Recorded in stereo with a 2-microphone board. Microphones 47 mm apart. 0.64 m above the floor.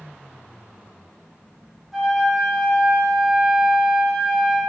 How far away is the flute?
About 0.6 m.